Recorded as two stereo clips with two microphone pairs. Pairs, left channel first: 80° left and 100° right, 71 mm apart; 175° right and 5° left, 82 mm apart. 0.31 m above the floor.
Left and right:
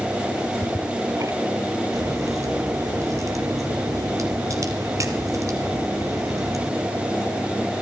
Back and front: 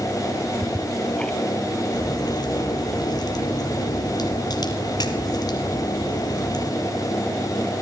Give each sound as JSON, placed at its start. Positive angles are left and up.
{"t": 0.3, "sound": "ticking", "azimuth_deg": -100, "distance_m": 1.9}
{"t": 1.9, "sound": "a crack", "azimuth_deg": -140, "distance_m": 3.5}